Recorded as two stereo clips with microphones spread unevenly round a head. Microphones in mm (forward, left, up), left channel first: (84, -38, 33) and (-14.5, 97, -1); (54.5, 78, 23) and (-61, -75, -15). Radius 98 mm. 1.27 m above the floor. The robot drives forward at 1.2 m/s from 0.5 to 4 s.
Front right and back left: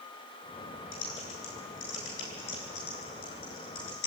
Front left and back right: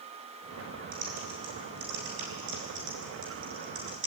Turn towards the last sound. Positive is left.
turn(degrees=-105)